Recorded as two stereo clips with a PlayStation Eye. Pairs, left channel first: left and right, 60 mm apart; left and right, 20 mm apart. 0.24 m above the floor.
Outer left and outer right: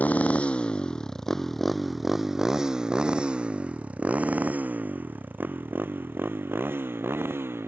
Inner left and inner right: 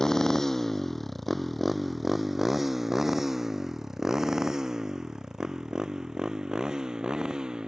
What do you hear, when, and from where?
0.0 s a motorcycle: 30° left (ahead or behind); by 7.7 s 40° right (ahead or behind)